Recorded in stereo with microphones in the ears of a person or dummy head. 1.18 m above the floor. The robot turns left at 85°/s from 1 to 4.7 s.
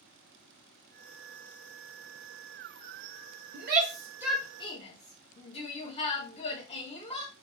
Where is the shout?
60° right (ahead or behind), 0.6 m; by 7.3 s 25° left (ahead or behind), 0.6 m.